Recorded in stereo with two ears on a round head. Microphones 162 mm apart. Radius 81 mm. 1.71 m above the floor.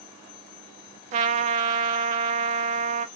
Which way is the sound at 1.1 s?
40° right (ahead or behind).